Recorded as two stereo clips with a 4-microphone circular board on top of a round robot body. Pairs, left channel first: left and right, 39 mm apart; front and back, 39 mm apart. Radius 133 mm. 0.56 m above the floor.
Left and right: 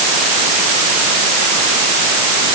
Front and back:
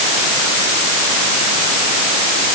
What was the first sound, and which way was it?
Only background noise.